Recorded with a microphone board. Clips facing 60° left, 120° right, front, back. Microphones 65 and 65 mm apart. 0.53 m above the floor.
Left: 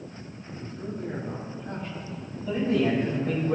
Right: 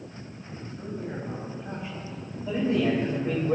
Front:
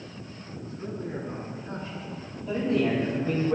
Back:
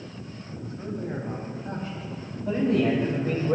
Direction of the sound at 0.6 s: 150° left.